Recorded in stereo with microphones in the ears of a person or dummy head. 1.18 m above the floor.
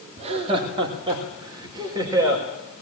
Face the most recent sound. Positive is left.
turn(degrees=-15)  # may be behind; listen again after turning